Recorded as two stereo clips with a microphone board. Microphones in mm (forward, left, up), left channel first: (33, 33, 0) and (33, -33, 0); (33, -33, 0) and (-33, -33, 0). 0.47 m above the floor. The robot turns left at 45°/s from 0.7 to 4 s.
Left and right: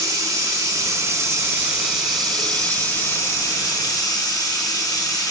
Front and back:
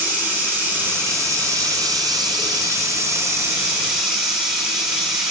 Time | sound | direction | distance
0.0 | running water | 110° right | 3 m